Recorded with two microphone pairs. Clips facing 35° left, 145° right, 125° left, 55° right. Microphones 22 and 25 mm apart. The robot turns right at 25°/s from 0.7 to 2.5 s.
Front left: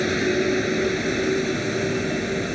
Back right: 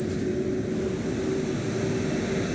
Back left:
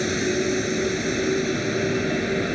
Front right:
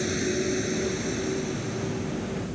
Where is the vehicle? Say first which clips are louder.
Front left 6 dB, back left 4 dB; 55° left; by 2.6 s 100° left.